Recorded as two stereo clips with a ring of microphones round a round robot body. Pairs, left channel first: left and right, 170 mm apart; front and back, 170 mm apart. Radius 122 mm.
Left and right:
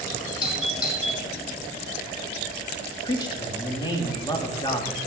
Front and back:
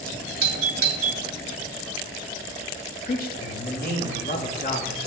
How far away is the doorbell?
About 1.9 m.